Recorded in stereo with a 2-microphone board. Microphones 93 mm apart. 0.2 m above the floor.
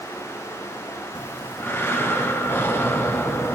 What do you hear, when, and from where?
1.1 s breathing: 25° left (ahead or behind), 1.3 m